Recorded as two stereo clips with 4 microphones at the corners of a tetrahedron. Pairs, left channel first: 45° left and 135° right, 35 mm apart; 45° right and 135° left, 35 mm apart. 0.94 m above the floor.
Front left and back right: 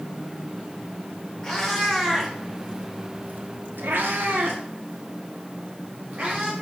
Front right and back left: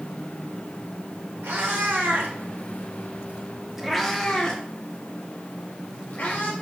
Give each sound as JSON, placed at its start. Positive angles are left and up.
{"t": 1.4, "sound": "a cat meowing", "azimuth_deg": 125, "distance_m": 1.9}